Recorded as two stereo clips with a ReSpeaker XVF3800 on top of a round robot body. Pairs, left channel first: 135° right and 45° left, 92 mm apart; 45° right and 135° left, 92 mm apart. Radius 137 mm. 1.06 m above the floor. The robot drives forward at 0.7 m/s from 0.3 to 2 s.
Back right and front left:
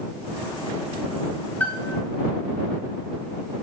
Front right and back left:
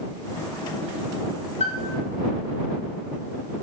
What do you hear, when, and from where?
1.6 s a piano: 55° right, 0.7 m; by 2.0 s 105° right, 0.7 m